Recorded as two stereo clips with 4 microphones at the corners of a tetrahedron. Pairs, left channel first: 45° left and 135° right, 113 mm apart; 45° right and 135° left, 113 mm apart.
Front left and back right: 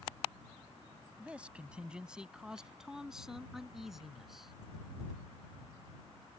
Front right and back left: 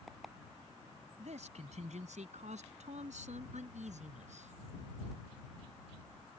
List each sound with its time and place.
1.2 s a man speaking: 145° left; by 4.5 s 135° left